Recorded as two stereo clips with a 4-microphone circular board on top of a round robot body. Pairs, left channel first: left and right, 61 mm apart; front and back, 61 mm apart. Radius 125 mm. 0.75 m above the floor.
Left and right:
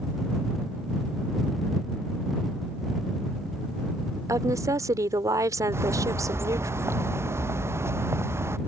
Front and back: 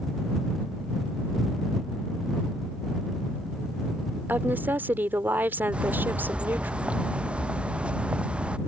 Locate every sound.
4.3 s a woman speaking: 120° right
5.7 s a bird: 115° right